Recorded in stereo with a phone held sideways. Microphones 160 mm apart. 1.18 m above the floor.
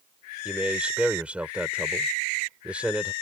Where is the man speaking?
10° right (ahead or behind).